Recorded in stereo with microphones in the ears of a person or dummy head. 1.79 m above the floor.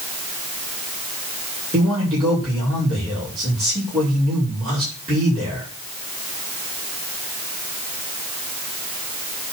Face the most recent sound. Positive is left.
turn(degrees=-20)  # may be behind; listen again after turning